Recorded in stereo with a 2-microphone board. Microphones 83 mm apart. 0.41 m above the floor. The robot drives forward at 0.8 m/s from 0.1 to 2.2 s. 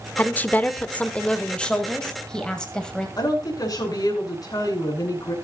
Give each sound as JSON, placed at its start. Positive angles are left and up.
{"t": 0.2, "sound": "a woman speaking", "side_deg": 20, "distance_m": 0.8}
{"t": 3.2, "sound": "a woman speaking", "side_deg": 50, "distance_m": 4.5}